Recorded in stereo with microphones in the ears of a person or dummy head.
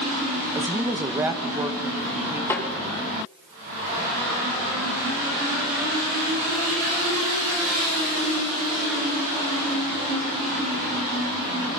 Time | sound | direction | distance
0.6 | a woman speaking | 5° right (ahead or behind) | 0.5 m
2.5 | a snare drum | 15° left (ahead or behind) | 3 m